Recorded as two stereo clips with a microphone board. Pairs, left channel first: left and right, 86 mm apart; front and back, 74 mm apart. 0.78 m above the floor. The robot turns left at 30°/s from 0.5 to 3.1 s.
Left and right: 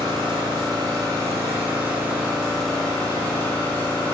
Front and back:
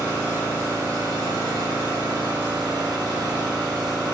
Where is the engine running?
120° right, 3 m; by 4.2 s 165° left, 3 m.